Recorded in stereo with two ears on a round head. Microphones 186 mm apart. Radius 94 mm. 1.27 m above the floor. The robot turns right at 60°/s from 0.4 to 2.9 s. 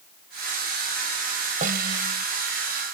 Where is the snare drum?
140° right; by 2.2 s 100° right.